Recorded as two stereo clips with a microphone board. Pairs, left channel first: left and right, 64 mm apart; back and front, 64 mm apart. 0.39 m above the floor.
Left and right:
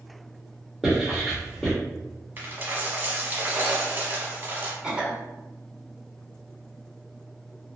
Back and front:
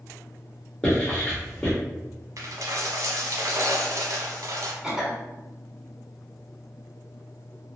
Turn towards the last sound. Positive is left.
turn(degrees=-60)